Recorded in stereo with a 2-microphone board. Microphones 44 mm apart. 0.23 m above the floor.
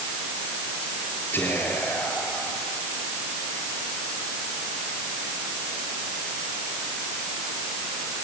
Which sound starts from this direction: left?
Whispering, at 1.3 s.